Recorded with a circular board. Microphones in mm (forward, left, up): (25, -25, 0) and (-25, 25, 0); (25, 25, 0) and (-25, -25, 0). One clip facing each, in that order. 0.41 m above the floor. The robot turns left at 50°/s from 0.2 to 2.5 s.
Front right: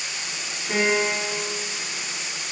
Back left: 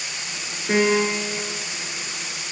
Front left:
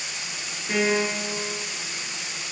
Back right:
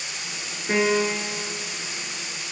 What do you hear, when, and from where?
0.7 s a piano: 170° left, 2.5 m; by 1.3 s 140° left, 2.5 m